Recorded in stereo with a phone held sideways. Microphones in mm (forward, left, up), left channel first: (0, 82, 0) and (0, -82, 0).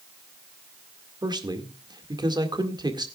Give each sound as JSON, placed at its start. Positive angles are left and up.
{"t": 1.2, "sound": "a man speaking", "side_deg": -25, "distance_m": 1.9}